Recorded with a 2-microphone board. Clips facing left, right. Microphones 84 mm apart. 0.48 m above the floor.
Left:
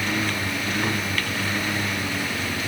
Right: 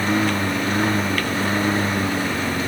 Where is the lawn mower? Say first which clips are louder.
Right 6 dB; 30° right (ahead or behind).